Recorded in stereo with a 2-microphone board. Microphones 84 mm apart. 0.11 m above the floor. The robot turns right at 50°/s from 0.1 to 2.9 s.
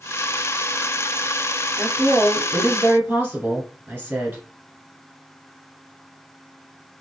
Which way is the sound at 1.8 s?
10° right (ahead or behind).